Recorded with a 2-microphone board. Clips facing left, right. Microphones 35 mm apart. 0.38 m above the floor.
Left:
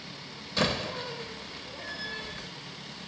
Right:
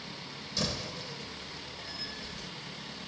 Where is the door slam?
50° left (ahead or behind), 1.0 m.